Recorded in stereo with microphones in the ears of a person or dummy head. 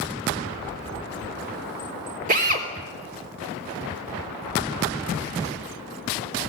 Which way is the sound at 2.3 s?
45° right (ahead or behind).